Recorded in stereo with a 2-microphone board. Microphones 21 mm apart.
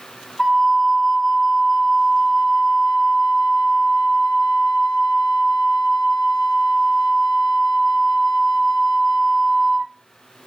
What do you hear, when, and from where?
0.4 s a flute: 10° left (ahead or behind), 2 m